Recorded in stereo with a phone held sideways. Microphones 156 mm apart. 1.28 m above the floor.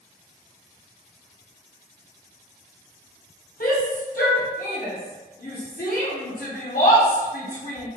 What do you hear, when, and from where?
3.6 s a shout: 70° left (ahead or behind), 1.2 m